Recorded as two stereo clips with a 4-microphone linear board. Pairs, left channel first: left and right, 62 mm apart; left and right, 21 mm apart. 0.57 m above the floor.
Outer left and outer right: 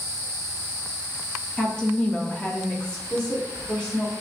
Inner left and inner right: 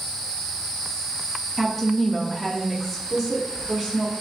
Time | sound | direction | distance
1.6 | a woman speaking | 10° left (ahead or behind) | 0.9 m